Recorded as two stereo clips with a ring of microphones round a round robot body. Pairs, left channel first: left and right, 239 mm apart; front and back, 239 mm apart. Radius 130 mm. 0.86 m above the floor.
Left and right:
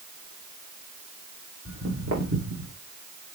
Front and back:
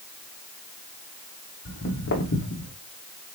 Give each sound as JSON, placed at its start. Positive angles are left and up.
{"t": 1.6, "sound": "footsteps", "azimuth_deg": -35, "distance_m": 3.5}